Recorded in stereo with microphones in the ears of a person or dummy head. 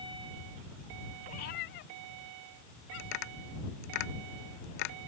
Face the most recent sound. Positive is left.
turn(degrees=60)  # may be behind; listen again after turning